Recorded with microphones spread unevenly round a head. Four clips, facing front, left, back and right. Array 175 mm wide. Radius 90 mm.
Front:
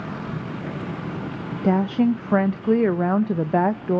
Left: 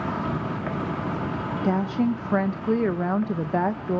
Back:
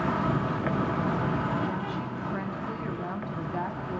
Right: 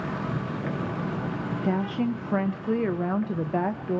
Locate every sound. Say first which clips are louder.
0.0 s an insect: left 3 dB, back 4 dB; 135° left, 2 m
1.6 s a woman speaking: left 3 dB, front 12 dB; 10° left, 0.5 m